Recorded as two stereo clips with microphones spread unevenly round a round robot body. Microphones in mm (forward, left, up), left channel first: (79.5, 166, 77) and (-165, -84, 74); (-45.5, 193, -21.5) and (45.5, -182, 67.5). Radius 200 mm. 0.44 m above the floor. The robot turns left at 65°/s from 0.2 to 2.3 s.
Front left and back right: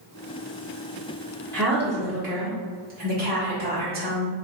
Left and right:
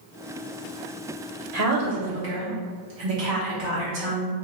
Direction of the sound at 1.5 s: 35° right.